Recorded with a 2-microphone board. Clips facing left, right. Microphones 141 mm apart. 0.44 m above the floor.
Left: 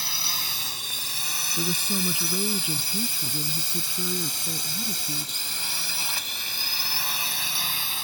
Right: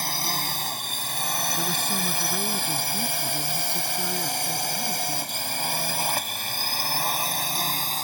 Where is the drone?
50° right (ahead or behind); by 8.1 s 45° right (ahead or behind).